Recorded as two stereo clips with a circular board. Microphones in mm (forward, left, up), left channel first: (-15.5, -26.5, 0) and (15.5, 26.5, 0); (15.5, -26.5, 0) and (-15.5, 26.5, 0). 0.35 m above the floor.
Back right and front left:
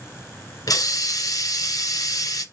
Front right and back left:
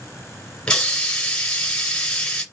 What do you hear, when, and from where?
0.7 s a hiss: 135° right, 1.7 m